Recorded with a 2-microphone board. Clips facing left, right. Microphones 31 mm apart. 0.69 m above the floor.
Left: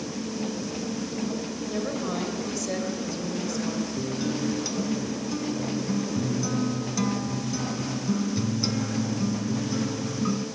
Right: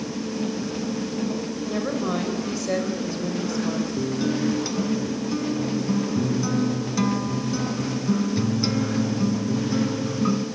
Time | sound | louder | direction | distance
1.7 | a woman speaking | right 4 dB | 20° right (ahead or behind) | 4 m
4.0 | a guitar | right 4 dB | 15° right (ahead or behind) | 1.6 m